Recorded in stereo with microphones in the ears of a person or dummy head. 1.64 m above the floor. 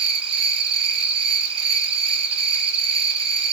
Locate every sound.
0.0 s an insect: 30° right (ahead or behind), 0.8 m